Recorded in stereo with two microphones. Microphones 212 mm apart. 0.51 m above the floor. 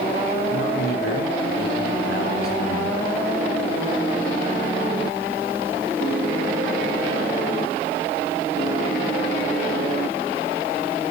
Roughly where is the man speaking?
Left.